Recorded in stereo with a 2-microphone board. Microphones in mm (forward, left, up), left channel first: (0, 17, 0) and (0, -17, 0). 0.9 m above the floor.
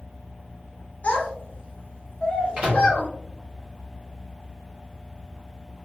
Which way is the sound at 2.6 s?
40° right (ahead or behind).